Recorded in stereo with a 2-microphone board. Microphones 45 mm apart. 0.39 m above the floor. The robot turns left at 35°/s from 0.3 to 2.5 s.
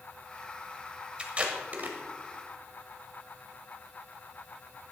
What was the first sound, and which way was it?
Tape being pulled, 25° right (ahead or behind).